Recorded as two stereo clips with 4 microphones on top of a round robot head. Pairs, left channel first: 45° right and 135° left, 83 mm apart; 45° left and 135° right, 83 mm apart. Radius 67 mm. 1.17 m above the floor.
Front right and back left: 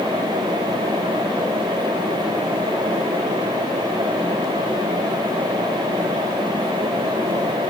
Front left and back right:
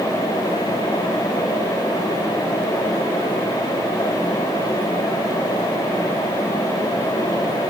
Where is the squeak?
No squeak in this recording.